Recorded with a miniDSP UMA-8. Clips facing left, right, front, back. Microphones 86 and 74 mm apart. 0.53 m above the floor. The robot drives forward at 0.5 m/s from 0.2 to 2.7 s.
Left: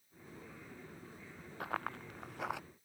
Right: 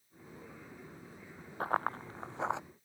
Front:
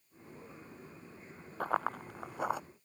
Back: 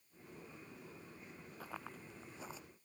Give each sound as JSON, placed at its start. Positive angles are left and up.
{"t": 1.6, "sound": "running footsteps", "azimuth_deg": -35}